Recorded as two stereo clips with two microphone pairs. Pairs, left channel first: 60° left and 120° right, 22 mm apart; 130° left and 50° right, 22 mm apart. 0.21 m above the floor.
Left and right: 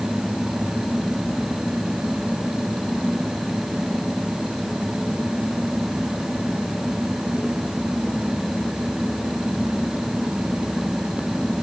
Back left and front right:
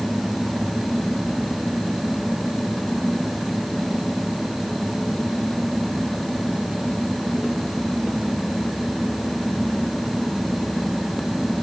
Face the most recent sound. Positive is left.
No sound to turn to.